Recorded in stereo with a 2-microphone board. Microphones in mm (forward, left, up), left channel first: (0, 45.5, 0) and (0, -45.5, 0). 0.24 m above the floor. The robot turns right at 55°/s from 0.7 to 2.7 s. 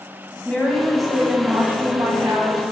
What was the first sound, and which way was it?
A woman speaking, 165° left.